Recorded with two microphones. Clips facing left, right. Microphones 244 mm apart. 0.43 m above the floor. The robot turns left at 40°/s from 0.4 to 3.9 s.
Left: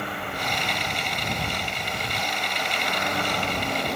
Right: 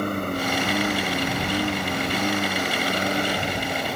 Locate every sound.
0.0 s a lawn mower: 45° right (ahead or behind); by 4.0 s centre (ahead or behind)